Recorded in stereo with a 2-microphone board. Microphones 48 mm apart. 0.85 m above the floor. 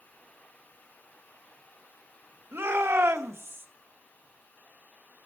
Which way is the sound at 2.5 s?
50° right (ahead or behind).